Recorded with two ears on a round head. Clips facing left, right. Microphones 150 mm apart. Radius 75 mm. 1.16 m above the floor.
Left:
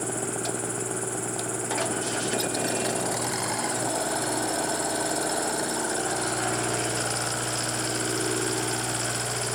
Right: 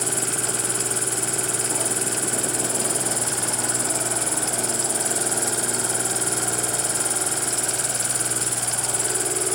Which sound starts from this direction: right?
An insect, at 0.0 s.